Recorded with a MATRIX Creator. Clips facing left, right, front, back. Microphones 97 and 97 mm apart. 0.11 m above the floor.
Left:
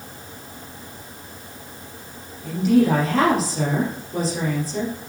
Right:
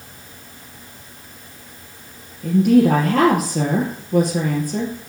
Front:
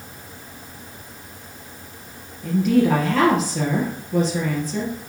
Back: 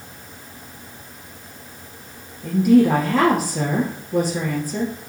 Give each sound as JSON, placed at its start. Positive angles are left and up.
{"t": 2.4, "sound": "a woman speaking", "azimuth_deg": -100, "distance_m": 3.0}